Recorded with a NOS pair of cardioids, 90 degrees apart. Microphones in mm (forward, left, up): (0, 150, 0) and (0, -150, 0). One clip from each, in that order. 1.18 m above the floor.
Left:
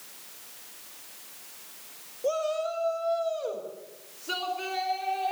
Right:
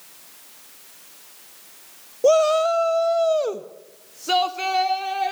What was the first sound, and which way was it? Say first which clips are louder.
A shout: right 12 dB; 60° right.